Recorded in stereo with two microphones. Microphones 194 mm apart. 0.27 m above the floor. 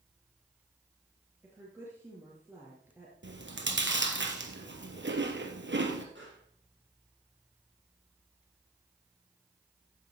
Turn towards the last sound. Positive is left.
turn(degrees=-80)